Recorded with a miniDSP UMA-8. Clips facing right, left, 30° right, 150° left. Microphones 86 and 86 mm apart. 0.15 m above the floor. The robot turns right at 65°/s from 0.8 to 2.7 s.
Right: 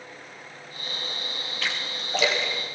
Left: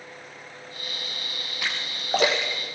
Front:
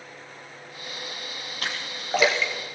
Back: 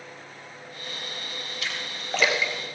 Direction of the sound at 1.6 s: 15° left.